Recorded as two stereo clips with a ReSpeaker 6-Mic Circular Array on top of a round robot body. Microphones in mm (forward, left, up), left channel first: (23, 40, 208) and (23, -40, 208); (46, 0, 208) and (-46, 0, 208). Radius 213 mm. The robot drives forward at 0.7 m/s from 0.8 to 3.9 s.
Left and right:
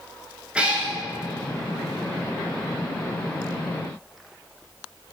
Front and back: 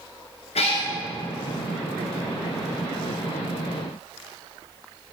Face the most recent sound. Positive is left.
turn(degrees=-175)